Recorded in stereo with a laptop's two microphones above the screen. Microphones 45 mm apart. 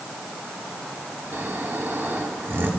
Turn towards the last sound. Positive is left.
turn(degrees=-55)  # may be behind; listen again after turning